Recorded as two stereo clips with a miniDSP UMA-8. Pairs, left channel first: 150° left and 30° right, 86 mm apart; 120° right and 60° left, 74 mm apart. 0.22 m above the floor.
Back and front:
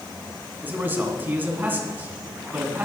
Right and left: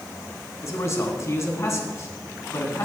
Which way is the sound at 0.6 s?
90° right.